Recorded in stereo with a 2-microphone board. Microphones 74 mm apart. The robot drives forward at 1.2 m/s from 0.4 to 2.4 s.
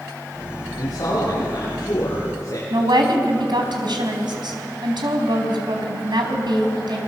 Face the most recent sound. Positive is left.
turn(degrees=-75)  # may be behind; listen again after turning